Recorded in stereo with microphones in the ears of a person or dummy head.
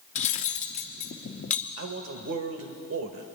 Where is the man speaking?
65° right (ahead or behind), 1.2 m.